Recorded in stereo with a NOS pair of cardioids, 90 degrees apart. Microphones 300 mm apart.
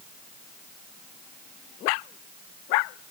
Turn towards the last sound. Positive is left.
No sound to turn to.